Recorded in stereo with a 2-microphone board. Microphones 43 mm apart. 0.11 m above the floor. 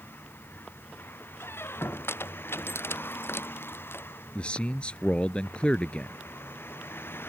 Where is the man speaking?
25° left (ahead or behind).